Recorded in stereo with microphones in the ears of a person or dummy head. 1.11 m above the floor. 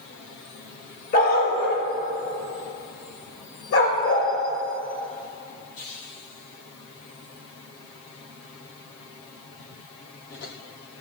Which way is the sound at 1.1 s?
45° left (ahead or behind).